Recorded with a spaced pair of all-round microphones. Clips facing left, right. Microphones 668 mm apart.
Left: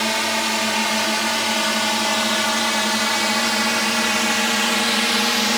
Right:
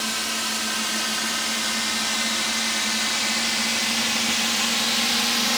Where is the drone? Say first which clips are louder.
Left 8 dB; 75° left (ahead or behind); by 5.6 s 70° left (ahead or behind).